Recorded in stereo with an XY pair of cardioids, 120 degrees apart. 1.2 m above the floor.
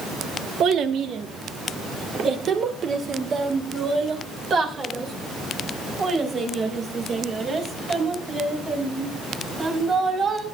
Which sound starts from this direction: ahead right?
A child speaking, at 0.6 s.